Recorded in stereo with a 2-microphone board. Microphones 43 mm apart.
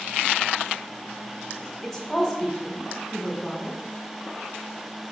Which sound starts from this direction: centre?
A woman speaking, at 1.8 s.